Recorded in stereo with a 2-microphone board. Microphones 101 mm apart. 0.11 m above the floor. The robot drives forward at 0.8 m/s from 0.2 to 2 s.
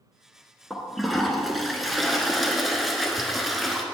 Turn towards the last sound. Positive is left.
turn(degrees=0)  # may be behind; listen again after turning